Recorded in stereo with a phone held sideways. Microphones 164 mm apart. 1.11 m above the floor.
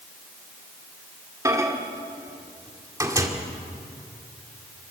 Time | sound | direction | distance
1.4 | a microwave | 20° right (ahead or behind) | 2 m